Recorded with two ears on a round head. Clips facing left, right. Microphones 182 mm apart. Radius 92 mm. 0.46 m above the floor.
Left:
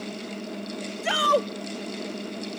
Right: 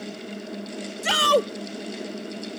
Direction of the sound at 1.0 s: 45° right (ahead or behind).